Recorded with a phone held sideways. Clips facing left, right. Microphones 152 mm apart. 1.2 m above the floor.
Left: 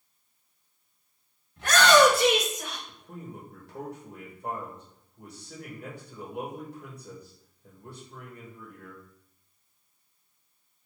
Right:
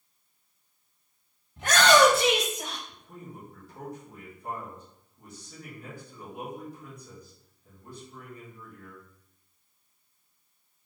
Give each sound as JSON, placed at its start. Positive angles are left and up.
{"t": 1.6, "sound": "a shout", "side_deg": -20, "distance_m": 2.0}
{"t": 2.9, "sound": "a man speaking", "side_deg": 70, "distance_m": 1.8}